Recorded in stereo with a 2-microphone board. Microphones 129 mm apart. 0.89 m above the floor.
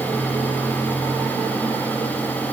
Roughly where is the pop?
No pop in this recording.